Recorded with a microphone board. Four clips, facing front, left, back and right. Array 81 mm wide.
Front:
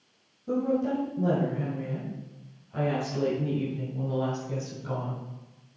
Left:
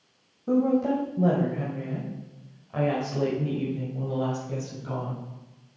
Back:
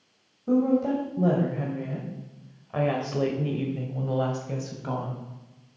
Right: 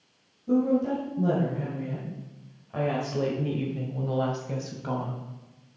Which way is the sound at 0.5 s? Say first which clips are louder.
Left 1 dB, back 4 dB; 125° left.